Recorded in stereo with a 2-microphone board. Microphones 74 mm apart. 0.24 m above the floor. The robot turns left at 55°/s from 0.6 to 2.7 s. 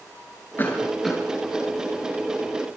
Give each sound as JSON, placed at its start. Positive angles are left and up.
{"t": 0.6, "sound": "a cough", "side_deg": 30, "distance_m": 4.5}